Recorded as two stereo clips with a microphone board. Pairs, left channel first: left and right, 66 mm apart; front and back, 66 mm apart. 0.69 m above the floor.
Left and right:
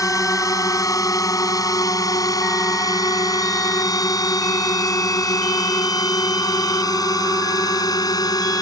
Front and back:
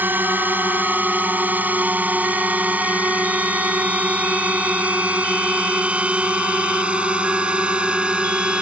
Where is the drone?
120° left; by 8.6 s 105° left.